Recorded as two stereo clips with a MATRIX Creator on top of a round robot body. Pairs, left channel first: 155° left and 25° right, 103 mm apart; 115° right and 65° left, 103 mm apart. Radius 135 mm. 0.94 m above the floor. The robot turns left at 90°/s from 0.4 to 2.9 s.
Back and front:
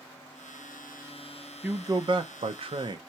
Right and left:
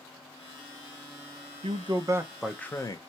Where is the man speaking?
50° left, 0.8 m; by 3.0 s 60° right, 0.8 m.